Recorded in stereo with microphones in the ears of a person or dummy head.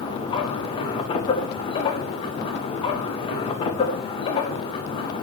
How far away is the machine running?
About 0.9 m.